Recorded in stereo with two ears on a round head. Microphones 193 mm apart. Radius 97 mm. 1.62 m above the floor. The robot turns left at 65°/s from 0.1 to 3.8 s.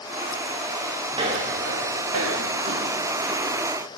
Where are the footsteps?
20° right (ahead or behind), 7.5 m; by 3.5 s 20° left (ahead or behind), 8 m.